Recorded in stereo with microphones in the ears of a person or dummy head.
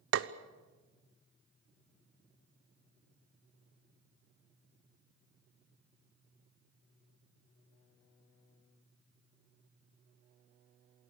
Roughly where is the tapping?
Right.